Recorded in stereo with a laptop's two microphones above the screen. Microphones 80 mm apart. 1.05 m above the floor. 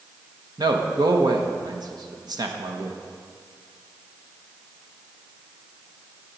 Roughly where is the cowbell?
I don't hear a cowbell.